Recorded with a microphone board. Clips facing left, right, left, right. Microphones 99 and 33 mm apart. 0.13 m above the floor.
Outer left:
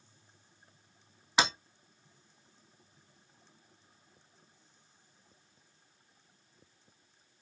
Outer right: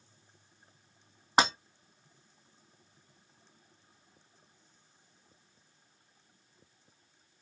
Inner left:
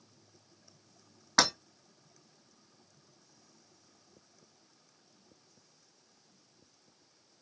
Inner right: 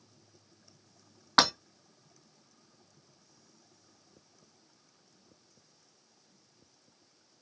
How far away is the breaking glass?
About 2.0 m.